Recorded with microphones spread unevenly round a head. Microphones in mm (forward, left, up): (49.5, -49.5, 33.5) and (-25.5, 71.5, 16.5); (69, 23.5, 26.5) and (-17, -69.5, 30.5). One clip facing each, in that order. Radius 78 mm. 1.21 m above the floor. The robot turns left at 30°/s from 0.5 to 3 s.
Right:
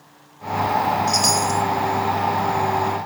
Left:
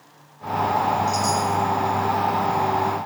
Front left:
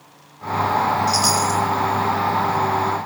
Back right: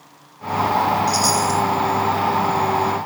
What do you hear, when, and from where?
1.1 s a chime: 35° right, 1.8 m; by 1.6 s 55° right, 1.8 m